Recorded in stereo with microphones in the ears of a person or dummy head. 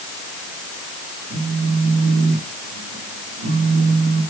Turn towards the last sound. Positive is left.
turn(degrees=-65)  # may be behind; listen again after turning